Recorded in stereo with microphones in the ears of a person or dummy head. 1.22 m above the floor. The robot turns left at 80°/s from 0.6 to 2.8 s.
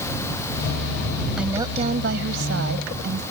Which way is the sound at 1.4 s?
5° right.